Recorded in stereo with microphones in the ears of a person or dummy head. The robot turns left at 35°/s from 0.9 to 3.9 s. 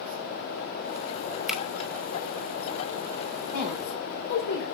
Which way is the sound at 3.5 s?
70° left (ahead or behind).